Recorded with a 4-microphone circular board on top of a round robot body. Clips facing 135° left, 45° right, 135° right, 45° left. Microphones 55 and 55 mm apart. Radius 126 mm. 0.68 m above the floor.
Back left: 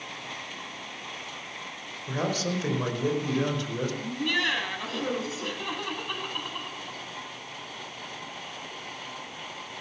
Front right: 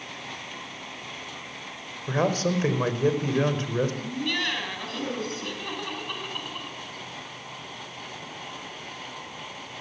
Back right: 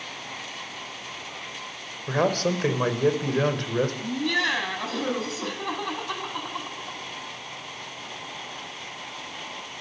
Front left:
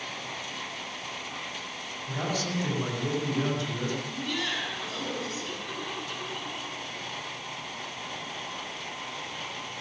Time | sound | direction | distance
2.1 | a man speaking | 100° right | 4.5 m
4.0 | laughter | 145° right | 6 m